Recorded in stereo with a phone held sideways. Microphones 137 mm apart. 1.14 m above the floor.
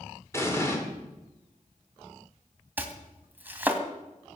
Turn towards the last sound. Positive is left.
turn(degrees=-15)  # may be behind; listen again after turning